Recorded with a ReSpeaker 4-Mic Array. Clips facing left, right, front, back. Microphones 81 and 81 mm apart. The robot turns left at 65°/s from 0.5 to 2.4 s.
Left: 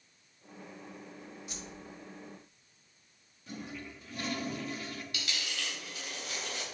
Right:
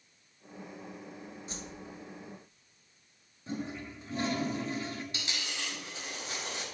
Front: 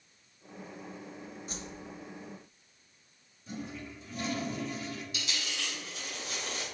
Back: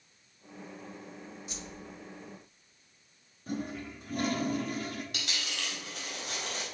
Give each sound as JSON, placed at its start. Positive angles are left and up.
{"t": 1.5, "sound": "a whoosh", "azimuth_deg": -40, "distance_m": 0.9}
{"t": 3.5, "sound": "a toilet flushing", "azimuth_deg": -150, "distance_m": 1.1}
{"t": 5.1, "sound": "a dropped coin", "azimuth_deg": -150, "distance_m": 3.5}